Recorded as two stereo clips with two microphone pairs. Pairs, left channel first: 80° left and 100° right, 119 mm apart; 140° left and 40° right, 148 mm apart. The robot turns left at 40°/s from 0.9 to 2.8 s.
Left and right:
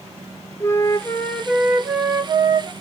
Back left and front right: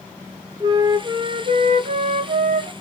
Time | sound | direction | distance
0.6 | a flute | 20° left | 0.5 m